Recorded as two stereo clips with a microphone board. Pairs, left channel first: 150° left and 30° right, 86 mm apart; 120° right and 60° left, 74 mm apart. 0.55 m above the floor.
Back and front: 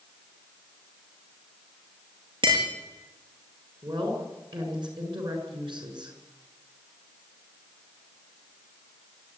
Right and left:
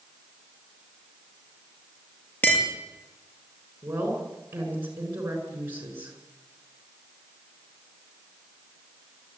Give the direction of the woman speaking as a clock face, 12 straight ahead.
12 o'clock.